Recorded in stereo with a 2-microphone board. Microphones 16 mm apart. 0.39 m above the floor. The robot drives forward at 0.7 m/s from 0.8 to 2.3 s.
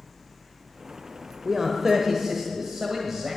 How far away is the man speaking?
About 1.1 m.